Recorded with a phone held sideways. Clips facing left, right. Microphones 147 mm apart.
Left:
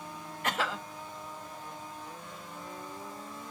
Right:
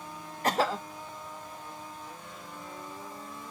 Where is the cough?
40° right (ahead or behind), 0.6 m.